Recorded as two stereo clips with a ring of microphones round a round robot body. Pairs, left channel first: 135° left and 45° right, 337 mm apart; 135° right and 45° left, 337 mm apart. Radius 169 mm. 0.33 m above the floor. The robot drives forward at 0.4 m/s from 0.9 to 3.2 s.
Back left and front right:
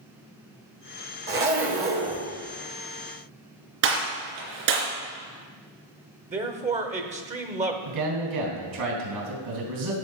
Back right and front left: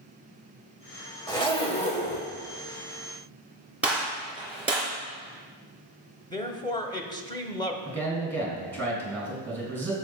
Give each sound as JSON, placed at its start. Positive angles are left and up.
{"t": 1.3, "sound": "a zipper", "azimuth_deg": -70, "distance_m": 1.6}
{"t": 3.8, "sound": "a gunshot", "azimuth_deg": -40, "distance_m": 3.5}
{"t": 6.3, "sound": "a man speaking", "azimuth_deg": -75, "distance_m": 0.8}
{"t": 7.8, "sound": "a man speaking", "azimuth_deg": -50, "distance_m": 3.5}